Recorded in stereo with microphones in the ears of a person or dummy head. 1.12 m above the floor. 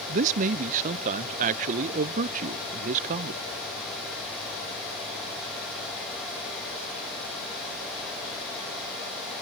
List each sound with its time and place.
0.1 s a man speaking: 40° right (ahead or behind), 0.5 m